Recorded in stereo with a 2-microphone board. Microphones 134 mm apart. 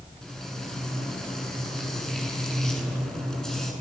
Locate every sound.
0.2 s frying: 5° left (ahead or behind), 8 m